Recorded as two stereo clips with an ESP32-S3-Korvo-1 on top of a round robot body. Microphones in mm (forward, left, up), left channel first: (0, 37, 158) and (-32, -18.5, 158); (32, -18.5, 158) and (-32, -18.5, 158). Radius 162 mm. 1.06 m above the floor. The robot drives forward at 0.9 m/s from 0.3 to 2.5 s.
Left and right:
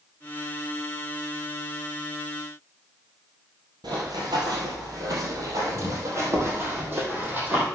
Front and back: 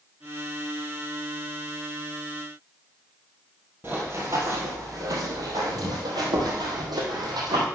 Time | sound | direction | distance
3.8 | running footsteps | 125° right | 2 m